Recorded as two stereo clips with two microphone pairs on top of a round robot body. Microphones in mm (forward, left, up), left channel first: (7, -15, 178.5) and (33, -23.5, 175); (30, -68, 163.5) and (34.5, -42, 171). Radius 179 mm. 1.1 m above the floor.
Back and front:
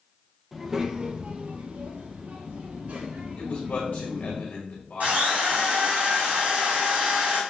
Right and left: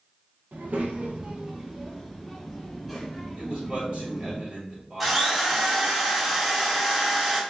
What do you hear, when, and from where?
0.5 s a child speaking: 70° left, 0.7 m; by 4.4 s 10° right, 3 m
3.4 s a man speaking: 135° left, 2.5 m
5.0 s a drill: 5° right, 2.5 m